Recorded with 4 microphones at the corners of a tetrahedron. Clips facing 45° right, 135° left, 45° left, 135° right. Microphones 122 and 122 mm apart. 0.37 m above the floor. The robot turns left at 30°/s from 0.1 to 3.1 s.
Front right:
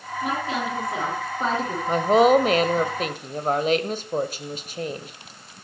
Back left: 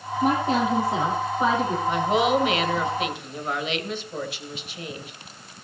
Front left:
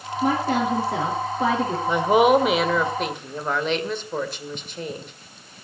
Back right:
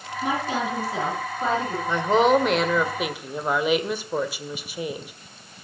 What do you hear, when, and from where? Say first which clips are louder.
0.2 s a woman speaking: back left 5 dB, front left 4 dB; 85° left, 5.5 m; by 1.8 s 35° left, 5.5 m
1.9 s a woman speaking: front right 6 dB, front left 2 dB; 20° right, 1.6 m; by 5.1 s 55° right, 1.6 m